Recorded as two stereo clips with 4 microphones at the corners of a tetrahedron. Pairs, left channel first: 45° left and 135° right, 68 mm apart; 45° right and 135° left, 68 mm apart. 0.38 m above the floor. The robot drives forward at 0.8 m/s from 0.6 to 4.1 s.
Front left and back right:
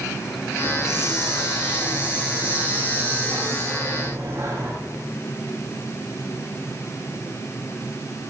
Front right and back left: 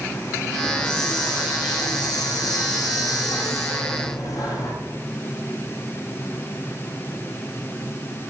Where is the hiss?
55° right, 5.5 m; by 4.7 s 80° right, 4.5 m.